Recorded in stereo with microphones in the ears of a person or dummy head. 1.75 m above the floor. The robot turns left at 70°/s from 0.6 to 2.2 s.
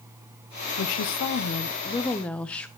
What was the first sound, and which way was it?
A woman speaking, 110° left.